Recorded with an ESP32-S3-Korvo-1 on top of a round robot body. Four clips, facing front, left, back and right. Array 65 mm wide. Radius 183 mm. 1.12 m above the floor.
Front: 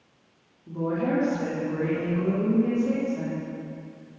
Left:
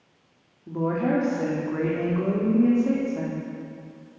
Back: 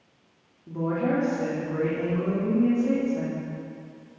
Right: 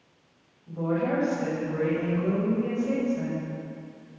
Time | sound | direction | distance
0.7 | a woman speaking | 95° left | 3.5 m